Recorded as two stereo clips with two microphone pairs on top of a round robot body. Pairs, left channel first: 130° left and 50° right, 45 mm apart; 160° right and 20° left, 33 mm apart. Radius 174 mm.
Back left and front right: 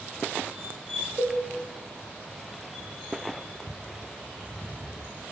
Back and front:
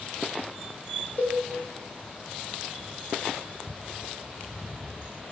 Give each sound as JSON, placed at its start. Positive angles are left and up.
{"t": 1.2, "sound": "a cowbell", "azimuth_deg": -115, "distance_m": 0.9}